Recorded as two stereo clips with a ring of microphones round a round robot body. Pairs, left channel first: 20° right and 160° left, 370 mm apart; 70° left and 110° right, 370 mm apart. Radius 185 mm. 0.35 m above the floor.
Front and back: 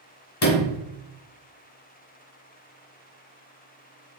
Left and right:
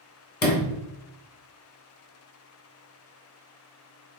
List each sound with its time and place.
0.4 s a sliding door: 10° left, 1.2 m